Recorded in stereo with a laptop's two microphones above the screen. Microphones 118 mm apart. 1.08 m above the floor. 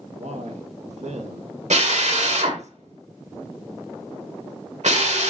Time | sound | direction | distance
0.2 | a man speaking | 70° right (ahead or behind) | 1.7 m
1.7 | a drill | 75° right (ahead or behind) | 1.9 m